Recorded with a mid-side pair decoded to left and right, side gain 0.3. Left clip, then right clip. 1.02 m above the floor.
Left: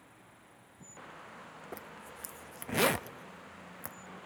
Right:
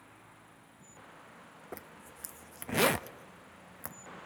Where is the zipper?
5° right, 0.6 m.